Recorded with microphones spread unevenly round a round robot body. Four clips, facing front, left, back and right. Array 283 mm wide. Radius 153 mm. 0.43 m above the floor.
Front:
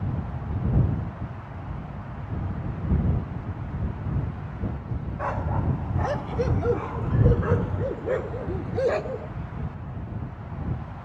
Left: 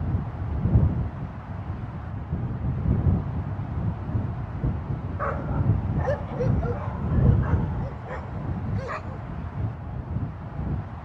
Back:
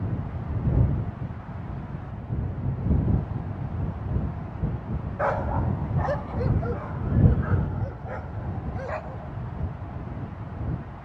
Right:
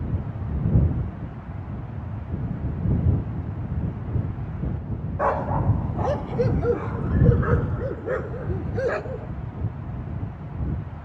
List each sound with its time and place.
5.2 s a dog barking: 105° right; by 9.3 s 40° right